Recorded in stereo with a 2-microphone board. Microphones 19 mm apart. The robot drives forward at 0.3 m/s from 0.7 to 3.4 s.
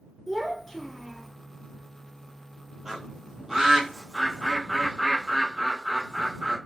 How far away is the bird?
About 1.1 m.